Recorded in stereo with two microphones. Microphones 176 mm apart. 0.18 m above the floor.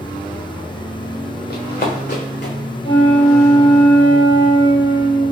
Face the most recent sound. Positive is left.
turn(degrees=30)  # may be behind; listen again after turning